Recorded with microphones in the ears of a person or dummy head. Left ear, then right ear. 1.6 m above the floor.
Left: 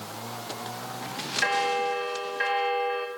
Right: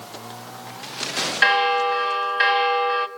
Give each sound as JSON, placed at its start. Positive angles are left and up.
{"t": 1.4, "sound": "a bell", "side_deg": -55, "distance_m": 1.7}